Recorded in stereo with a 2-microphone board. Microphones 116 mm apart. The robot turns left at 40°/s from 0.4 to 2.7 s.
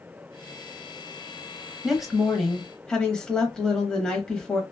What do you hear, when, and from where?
1.8 s a woman speaking: 5° right (ahead or behind), 0.9 m; by 4.6 s 10° left (ahead or behind), 0.9 m